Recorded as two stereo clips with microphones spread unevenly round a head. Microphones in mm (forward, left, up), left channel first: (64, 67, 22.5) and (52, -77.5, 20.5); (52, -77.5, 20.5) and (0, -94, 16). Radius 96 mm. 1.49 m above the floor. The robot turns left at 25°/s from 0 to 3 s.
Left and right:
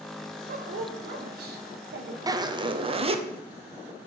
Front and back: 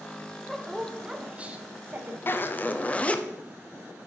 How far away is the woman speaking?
About 1.0 m.